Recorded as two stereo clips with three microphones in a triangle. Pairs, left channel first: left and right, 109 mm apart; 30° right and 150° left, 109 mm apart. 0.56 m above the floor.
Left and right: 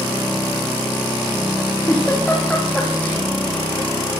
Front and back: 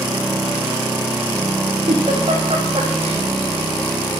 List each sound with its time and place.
1.9 s a giggle: 165° left, 9 m